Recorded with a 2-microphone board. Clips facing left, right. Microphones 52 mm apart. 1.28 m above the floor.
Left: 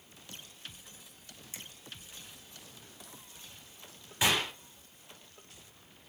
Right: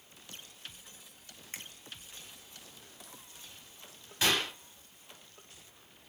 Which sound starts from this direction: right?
A finger snap, at 1.5 s.